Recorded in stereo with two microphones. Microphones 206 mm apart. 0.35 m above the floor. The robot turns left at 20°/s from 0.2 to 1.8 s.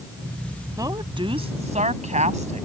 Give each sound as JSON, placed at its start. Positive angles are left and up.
{"t": 0.8, "sound": "a woman speaking", "side_deg": -15}